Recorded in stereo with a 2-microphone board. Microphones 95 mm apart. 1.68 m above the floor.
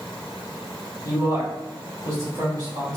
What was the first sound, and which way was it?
A man speaking, 45° right (ahead or behind).